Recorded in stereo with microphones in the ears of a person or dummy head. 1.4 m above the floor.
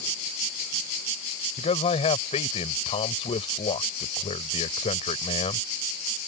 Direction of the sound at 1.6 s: 30° left (ahead or behind).